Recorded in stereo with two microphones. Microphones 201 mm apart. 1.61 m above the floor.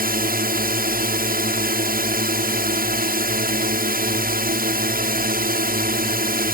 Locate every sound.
0.0 s a drone: 45° right (ahead or behind)